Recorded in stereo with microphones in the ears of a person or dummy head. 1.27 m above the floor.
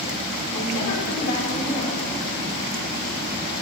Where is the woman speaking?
70° left (ahead or behind), 4.5 m.